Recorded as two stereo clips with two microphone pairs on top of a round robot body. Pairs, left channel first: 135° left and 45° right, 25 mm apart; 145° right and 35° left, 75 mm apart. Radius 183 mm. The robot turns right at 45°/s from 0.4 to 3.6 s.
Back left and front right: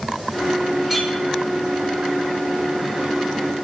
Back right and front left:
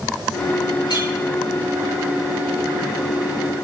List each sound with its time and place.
0.9 s a clink: 130° right, 4 m; by 1.1 s 120° right, 4 m